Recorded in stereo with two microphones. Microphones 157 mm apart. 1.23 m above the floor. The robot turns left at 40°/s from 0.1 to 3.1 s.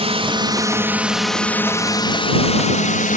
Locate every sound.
0.0 s a drone: 135° right; by 3.2 s 105° left